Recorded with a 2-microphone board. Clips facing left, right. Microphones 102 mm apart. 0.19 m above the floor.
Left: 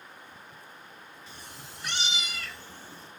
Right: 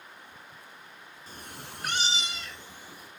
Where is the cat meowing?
40° right (ahead or behind), 0.7 m; by 3.1 s 10° right (ahead or behind), 1.8 m.